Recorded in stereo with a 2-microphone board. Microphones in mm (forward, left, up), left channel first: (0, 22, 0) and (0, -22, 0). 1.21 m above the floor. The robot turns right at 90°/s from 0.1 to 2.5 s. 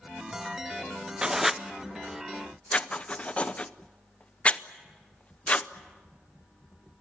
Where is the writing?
15° right (ahead or behind), 0.6 m; by 5.7 s 30° left (ahead or behind), 0.6 m.